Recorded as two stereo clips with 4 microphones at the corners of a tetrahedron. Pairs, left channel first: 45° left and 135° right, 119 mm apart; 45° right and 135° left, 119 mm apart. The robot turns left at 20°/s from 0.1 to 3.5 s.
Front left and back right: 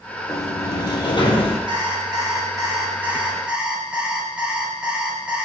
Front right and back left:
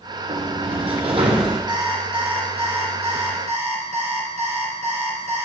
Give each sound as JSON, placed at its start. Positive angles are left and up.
{"t": 0.3, "sound": "a sliding door", "azimuth_deg": 110, "distance_m": 1.6}
{"t": 1.7, "sound": "an alarm clock", "azimuth_deg": 180, "distance_m": 1.8}